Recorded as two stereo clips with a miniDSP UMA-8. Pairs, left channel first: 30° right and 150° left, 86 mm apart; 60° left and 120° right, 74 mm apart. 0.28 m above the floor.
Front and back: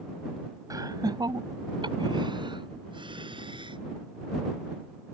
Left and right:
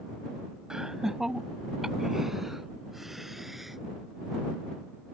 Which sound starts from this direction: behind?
Laughter, at 0.7 s.